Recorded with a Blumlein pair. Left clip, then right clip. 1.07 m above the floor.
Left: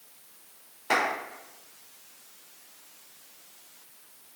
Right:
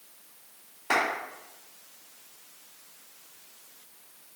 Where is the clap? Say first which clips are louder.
Even; straight ahead, 3 m.